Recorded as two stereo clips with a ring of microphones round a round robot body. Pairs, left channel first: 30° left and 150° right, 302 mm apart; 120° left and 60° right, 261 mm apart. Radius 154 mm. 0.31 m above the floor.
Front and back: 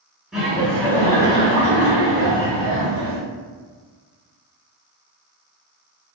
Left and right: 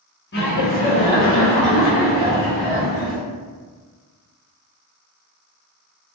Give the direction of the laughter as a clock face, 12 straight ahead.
8 o'clock.